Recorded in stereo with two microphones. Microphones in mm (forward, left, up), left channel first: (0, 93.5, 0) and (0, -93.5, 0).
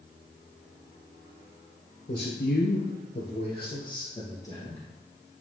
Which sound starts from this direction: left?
A man speaking, at 2.1 s.